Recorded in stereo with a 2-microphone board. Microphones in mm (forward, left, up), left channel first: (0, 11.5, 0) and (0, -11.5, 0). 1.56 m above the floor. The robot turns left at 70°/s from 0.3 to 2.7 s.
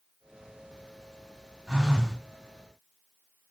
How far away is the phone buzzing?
About 2 m.